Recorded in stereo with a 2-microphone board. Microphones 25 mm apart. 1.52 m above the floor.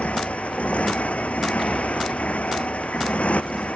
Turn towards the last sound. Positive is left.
turn(degrees=90)